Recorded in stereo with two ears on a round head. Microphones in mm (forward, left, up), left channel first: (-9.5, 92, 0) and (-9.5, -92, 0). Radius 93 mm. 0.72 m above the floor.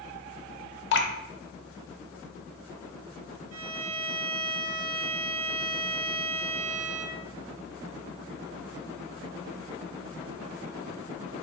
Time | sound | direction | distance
0.9 | dripping | 65° left (ahead or behind) | 0.7 m
3.5 | a violin | 60° right (ahead or behind) | 1.0 m